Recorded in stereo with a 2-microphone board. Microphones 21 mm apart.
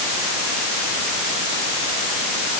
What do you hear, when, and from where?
Only background noise.